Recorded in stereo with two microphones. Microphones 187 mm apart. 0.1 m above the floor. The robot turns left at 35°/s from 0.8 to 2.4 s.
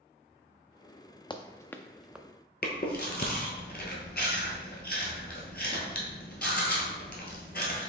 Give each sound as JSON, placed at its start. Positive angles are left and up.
{"t": 1.3, "sound": "running footsteps", "side_deg": 25, "distance_m": 0.6}
{"t": 2.6, "sound": "chewing", "side_deg": 55, "distance_m": 1.0}